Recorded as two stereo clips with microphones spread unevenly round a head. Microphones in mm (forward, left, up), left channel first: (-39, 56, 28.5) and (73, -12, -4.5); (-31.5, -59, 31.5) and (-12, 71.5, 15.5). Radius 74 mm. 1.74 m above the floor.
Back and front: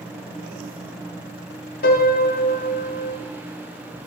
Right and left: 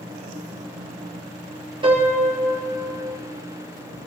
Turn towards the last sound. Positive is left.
turn(degrees=135)